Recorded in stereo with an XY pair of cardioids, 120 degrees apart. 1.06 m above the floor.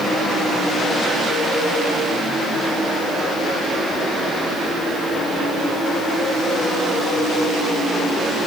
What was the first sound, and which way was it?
Only background noise.